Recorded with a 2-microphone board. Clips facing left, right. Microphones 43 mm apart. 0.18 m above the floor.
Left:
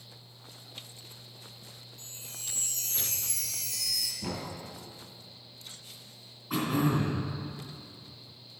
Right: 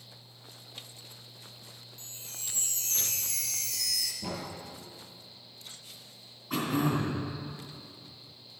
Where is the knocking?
20° left (ahead or behind), 2.5 m.